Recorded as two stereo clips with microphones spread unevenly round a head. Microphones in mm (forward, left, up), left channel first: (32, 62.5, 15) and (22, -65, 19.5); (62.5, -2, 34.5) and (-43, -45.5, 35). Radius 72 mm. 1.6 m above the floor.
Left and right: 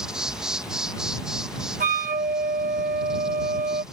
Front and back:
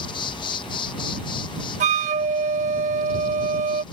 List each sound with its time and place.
0.0 s an insect: 15° right
1.8 s a flute: 135° right